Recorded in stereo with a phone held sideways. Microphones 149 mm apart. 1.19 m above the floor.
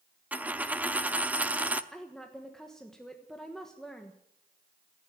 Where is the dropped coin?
10° right (ahead or behind), 0.7 m.